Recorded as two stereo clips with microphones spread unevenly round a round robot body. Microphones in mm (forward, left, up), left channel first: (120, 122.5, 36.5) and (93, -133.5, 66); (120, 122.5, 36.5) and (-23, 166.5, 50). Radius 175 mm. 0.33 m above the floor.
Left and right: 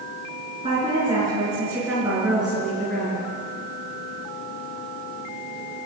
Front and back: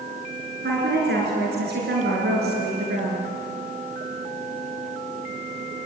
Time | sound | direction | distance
0.6 | a woman speaking | 170° right | 6 m